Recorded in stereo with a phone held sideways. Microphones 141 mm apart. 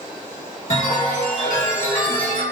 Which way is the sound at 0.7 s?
60° left (ahead or behind).